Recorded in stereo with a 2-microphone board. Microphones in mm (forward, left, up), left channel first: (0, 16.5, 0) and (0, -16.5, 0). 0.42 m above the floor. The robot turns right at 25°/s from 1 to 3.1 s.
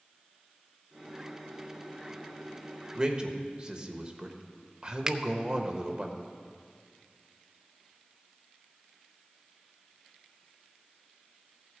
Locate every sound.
3.0 s a man speaking: 25° right (ahead or behind), 1.2 m
5.1 s a finger snap: 20° right (ahead or behind), 0.5 m